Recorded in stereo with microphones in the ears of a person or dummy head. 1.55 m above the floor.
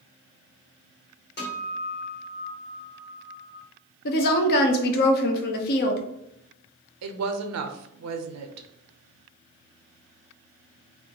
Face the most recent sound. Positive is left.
turn(degrees=-85)